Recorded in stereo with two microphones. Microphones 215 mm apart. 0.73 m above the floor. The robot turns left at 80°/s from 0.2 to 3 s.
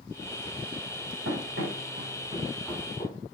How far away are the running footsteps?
About 4 m.